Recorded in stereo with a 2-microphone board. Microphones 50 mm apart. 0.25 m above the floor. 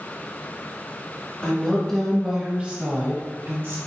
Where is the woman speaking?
30° left (ahead or behind), 1.1 m; by 3.8 s 55° right (ahead or behind), 1.7 m.